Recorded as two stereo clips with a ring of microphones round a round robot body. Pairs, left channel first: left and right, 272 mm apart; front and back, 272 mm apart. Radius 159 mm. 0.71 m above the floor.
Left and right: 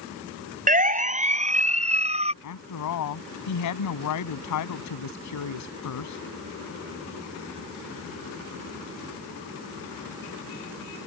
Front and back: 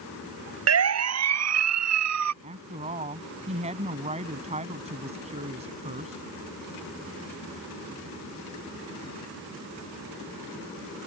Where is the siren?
150° right; by 2.3 s 155° right.